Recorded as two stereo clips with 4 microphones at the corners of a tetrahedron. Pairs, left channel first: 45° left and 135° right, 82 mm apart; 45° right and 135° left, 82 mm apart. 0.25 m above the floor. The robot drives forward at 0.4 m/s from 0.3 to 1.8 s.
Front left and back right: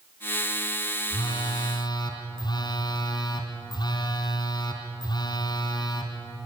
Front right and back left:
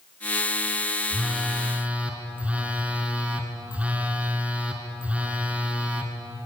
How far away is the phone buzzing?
About 2 m.